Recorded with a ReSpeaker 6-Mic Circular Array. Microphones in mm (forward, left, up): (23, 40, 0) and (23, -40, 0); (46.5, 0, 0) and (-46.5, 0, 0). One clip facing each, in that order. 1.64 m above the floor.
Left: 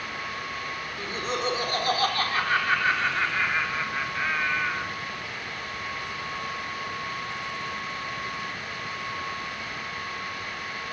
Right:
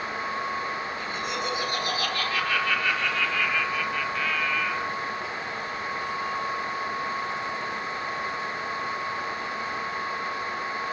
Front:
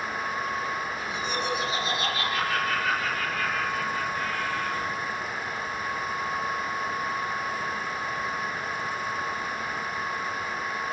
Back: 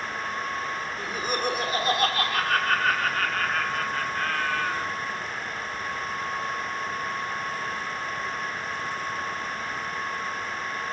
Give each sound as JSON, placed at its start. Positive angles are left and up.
{"t": 1.0, "sound": "laughter", "azimuth_deg": 140, "distance_m": 6.0}